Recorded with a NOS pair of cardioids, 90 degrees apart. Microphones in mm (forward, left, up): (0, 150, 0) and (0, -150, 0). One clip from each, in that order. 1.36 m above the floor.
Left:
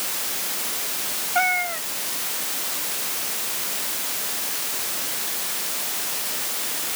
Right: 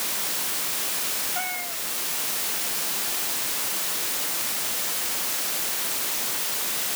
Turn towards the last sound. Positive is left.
turn(degrees=70)